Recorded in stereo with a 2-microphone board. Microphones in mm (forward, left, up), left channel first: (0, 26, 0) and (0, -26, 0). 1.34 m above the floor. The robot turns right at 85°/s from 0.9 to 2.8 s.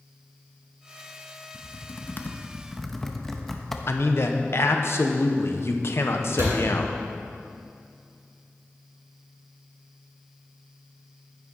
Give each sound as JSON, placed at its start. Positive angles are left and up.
{"t": 1.5, "sound": "typing on a keyboard", "side_deg": 40, "distance_m": 0.7}
{"t": 3.9, "sound": "a man speaking", "side_deg": 60, "distance_m": 0.9}
{"t": 6.4, "sound": "a door slam", "side_deg": -65, "distance_m": 4.0}